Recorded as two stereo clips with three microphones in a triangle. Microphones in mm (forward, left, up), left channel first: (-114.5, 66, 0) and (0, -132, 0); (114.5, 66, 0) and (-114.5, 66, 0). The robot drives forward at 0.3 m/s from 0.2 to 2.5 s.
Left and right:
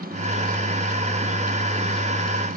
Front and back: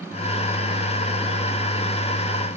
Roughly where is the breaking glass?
No breaking glass in this recording.